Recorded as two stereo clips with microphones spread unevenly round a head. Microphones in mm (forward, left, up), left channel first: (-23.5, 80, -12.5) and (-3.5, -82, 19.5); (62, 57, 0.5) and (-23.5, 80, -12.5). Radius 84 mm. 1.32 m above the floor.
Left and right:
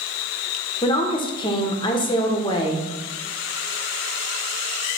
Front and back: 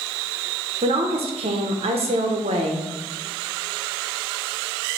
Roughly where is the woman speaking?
Behind.